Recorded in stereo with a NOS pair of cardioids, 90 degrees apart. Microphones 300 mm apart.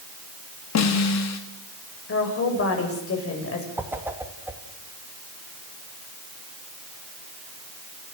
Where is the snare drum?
55° left, 3 m.